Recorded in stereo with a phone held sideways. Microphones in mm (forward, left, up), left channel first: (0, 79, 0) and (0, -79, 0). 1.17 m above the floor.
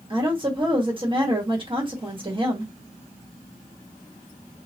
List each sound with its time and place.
0.1 s a woman speaking: 35° right (ahead or behind), 1.5 m